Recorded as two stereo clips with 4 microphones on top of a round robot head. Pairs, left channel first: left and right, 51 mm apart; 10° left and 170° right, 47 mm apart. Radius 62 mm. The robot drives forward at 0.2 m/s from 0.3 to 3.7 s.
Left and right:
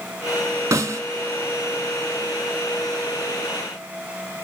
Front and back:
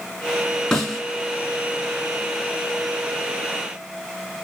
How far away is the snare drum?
About 3.5 m.